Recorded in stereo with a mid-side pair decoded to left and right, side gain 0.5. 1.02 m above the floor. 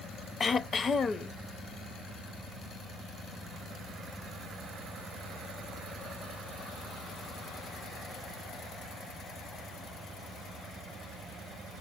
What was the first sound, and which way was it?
Throat clearing, 40° left.